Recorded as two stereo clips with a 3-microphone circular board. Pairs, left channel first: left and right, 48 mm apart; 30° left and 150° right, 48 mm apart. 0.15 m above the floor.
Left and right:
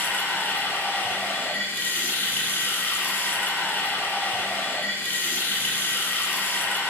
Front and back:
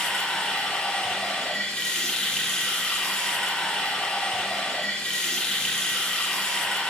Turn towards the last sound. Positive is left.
turn(degrees=90)